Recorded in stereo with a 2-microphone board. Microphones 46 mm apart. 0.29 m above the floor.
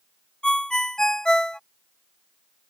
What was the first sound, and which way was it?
A ringtone, 15° left (ahead or behind).